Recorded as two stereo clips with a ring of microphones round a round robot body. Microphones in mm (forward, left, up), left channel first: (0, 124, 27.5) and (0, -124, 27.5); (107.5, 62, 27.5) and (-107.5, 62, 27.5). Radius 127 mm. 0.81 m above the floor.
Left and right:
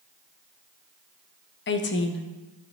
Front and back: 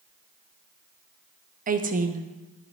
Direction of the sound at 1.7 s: 130° left.